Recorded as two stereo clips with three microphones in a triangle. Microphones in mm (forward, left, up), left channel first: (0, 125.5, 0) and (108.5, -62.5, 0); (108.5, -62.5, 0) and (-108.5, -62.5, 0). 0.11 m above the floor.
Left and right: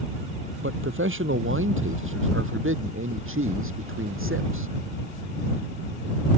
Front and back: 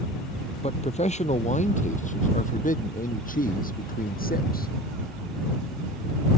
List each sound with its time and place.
0.6 s a man speaking: 60° right; by 4.7 s 45° right